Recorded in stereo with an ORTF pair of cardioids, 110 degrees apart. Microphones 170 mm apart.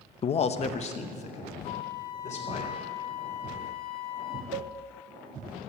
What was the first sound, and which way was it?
A man speaking, 35° left.